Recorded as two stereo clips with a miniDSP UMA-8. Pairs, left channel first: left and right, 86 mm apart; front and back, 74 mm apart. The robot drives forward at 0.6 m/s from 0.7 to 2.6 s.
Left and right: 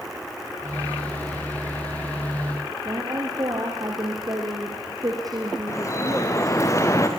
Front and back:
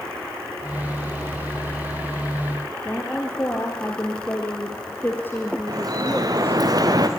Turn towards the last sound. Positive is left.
turn(degrees=145)